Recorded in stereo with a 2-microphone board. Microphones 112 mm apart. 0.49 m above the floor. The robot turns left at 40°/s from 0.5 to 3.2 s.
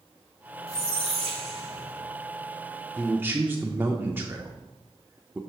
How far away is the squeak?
About 1.5 m.